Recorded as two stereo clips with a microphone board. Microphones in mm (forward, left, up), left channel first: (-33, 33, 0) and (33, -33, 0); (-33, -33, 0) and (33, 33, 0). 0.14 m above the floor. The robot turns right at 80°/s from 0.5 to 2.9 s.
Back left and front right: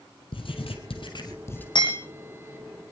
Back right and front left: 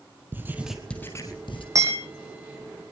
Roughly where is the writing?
Behind left.